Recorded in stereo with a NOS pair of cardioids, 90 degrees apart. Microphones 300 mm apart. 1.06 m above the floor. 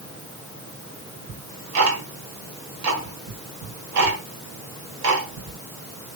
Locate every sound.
1.3 s ticking: 70° right, 2 m